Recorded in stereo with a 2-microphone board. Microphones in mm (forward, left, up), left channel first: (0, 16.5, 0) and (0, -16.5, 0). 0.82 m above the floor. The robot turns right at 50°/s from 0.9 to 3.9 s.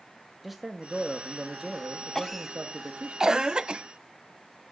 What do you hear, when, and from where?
0.4 s a man speaking: straight behind, 1.4 m; by 3.1 s 65° right, 1.4 m
2.1 s a cough: 10° left (ahead or behind), 0.6 m; by 3.8 s 30° right (ahead or behind), 0.6 m